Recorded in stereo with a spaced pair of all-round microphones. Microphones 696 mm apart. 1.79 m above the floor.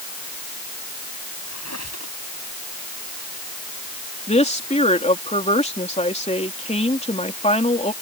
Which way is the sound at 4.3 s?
10° left (ahead or behind).